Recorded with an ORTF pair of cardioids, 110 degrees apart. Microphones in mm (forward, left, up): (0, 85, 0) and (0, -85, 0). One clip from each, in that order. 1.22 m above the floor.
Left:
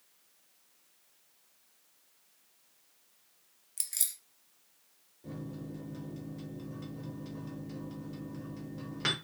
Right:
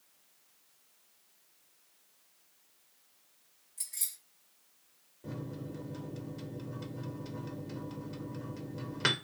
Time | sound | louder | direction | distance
3.8 | keys jangling | left 4 dB | 65° left | 0.6 m
5.2 | a microwave | right 1 dB | 20° right | 0.5 m